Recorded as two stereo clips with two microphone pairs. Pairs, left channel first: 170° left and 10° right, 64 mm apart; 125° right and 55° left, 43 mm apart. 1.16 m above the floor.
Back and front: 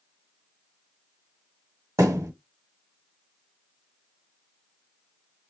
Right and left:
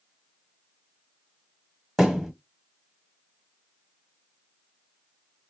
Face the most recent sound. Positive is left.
turn(degrees=-35)